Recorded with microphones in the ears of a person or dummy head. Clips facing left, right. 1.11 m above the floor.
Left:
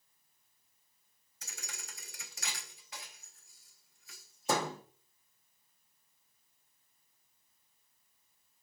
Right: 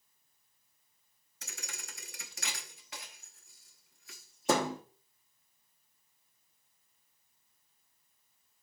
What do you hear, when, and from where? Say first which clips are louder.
1.4 s a thud: right 2 dB; 50° right (ahead or behind), 0.8 m